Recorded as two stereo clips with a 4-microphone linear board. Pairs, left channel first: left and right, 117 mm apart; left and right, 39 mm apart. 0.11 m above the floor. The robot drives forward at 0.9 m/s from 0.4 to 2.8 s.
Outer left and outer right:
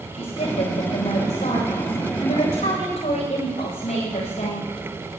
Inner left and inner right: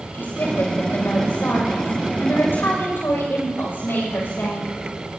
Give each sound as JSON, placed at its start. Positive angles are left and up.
{"t": 0.1, "sound": "a woman speaking", "side_deg": 75, "distance_m": 8.5}